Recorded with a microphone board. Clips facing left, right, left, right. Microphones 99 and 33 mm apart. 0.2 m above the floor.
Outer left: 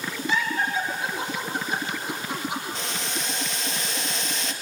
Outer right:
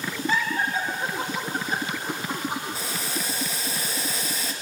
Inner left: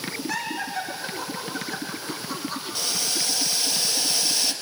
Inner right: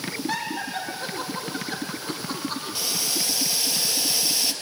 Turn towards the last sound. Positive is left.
turn(degrees=-10)  # may be behind; listen again after turning